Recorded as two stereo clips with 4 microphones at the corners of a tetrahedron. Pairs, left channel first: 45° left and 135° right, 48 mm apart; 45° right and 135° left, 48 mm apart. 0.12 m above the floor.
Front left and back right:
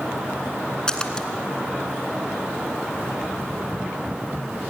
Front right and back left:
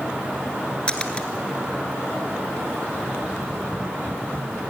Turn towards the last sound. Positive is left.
turn(degrees=-10)